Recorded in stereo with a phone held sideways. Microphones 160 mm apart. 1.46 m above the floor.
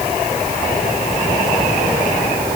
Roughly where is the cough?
No cough in this recording.